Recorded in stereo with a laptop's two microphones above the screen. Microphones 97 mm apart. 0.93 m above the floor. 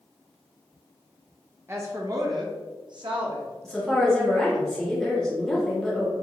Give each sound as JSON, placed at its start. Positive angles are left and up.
{"t": 1.7, "sound": "a woman speaking", "side_deg": -25, "distance_m": 0.9}
{"t": 3.6, "sound": "a woman speaking", "side_deg": 5, "distance_m": 1.4}